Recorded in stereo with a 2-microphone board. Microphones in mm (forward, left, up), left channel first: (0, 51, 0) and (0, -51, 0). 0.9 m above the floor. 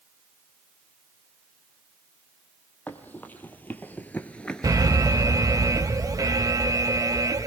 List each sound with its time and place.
2.9 s running footsteps: 15° left (ahead or behind), 2 m; by 5.1 s centre (ahead or behind), 1.1 m
4.6 s an alarm: 35° right (ahead or behind), 0.8 m